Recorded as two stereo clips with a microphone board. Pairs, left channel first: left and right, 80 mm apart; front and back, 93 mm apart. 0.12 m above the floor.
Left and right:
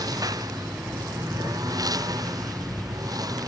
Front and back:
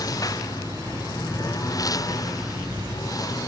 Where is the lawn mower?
50° right.